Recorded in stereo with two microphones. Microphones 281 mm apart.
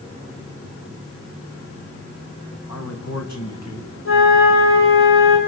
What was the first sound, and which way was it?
A man speaking, 80° left.